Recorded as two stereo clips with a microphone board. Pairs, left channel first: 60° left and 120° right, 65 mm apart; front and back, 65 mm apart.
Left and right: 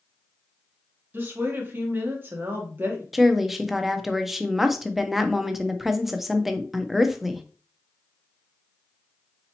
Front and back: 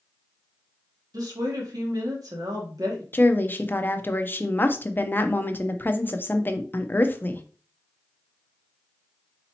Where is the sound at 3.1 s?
35° right, 0.6 m.